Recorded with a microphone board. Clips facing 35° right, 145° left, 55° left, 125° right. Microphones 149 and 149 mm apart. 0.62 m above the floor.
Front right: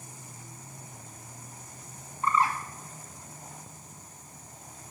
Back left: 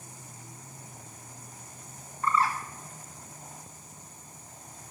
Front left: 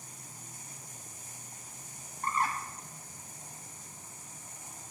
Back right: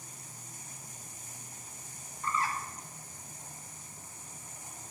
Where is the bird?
35° left, 0.8 m.